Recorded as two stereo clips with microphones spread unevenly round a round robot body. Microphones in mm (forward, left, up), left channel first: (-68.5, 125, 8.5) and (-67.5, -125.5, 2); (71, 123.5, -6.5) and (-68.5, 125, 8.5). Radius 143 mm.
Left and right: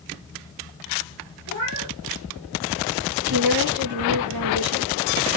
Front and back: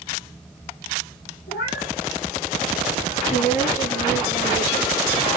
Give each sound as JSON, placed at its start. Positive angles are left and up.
{"t": 1.5, "sound": "a cat meowing", "azimuth_deg": -55, "distance_m": 4.5}
{"t": 3.2, "sound": "a woman speaking", "azimuth_deg": -60, "distance_m": 4.5}